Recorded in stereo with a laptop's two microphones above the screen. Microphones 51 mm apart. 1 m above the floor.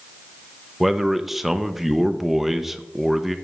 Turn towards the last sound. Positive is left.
turn(degrees=-5)  # may be behind; listen again after turning